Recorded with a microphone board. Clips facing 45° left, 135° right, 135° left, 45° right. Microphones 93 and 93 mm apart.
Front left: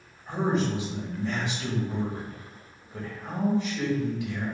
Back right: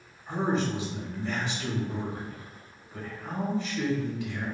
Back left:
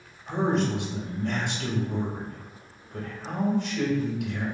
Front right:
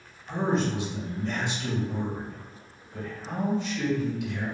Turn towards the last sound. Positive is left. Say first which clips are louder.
# front left 1 dB, back left 1 dB
turn(degrees=115)